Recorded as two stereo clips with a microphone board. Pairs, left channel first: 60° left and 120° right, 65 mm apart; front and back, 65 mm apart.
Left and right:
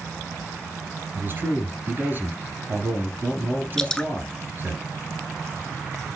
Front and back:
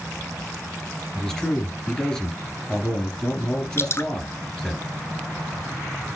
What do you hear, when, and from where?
1.1 s a man speaking: 75° right, 2.5 m
3.8 s dripping: 15° right, 1.0 m